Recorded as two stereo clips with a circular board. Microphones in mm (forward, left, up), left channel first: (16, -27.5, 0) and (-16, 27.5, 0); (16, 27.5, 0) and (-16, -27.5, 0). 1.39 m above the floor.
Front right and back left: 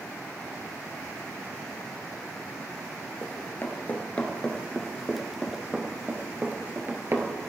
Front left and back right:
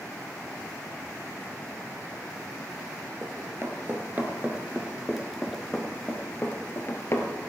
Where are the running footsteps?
95° right, 1.9 m; by 7.3 s 85° left, 1.9 m.